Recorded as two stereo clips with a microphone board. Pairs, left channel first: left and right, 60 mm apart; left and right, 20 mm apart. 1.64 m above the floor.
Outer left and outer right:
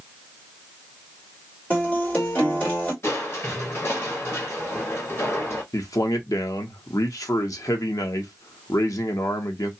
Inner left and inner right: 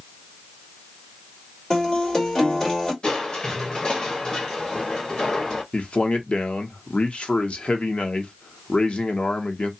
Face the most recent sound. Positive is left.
turn(degrees=80)